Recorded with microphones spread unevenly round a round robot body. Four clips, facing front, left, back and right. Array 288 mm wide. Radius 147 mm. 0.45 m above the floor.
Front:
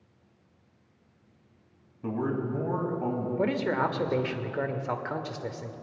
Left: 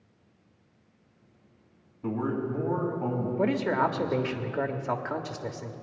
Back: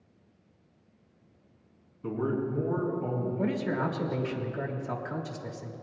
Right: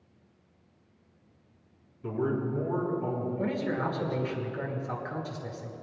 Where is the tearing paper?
No tearing paper in this recording.